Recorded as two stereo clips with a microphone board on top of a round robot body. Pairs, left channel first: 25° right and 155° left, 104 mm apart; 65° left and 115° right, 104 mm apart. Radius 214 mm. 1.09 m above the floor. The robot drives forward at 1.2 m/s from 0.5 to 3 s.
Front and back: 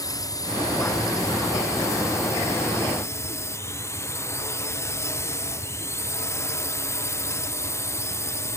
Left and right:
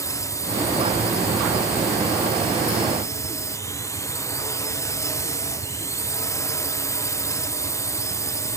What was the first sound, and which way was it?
A drone, 20° left.